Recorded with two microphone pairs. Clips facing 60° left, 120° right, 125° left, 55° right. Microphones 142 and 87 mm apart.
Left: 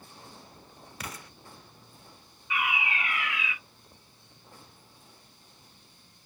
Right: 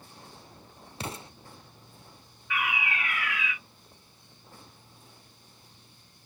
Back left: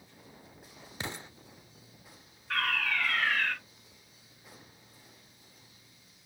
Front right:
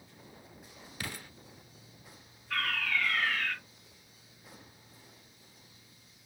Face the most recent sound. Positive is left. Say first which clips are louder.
# left 1 dB, back left 2 dB
turn(degrees=130)